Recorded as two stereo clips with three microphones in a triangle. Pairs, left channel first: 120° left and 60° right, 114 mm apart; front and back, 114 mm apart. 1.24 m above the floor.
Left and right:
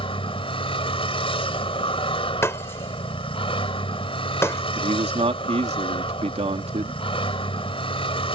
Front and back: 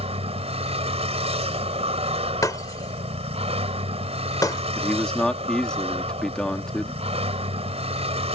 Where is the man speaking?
85° right.